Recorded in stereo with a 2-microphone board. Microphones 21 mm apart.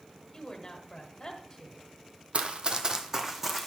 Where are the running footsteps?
60° right (ahead or behind), 0.7 m; by 3.7 s 10° right (ahead or behind), 1.3 m.